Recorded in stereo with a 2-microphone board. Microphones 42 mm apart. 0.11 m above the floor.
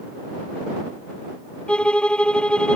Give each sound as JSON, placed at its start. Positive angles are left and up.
{"t": 1.7, "sound": "a violin", "side_deg": 25}